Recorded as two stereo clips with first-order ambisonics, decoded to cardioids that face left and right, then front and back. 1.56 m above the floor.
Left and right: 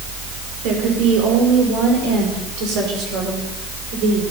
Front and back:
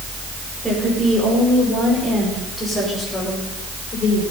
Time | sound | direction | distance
0.6 | a woman speaking | 90° right | 5 m